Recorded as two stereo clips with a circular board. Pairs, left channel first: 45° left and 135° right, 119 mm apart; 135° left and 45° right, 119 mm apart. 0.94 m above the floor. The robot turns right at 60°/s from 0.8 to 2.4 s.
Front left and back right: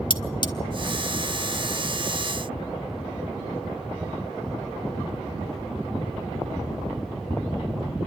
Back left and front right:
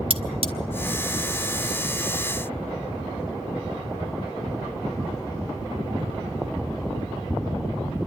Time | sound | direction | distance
0.1 | cutlery clinking | 5° right | 1.4 m